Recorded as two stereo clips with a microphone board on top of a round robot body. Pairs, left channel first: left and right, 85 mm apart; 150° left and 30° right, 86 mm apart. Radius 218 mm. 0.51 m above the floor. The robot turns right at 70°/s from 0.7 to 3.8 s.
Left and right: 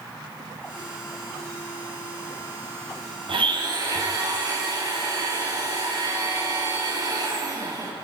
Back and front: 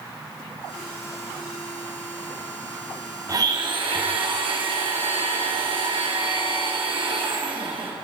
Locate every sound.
3.3 s a blender: 80° right, 5.5 m; by 7.9 s 45° right, 5.5 m